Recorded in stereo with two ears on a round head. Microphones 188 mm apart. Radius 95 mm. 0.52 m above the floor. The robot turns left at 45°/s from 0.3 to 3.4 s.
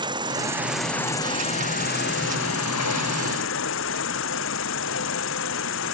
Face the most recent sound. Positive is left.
turn(degrees=65)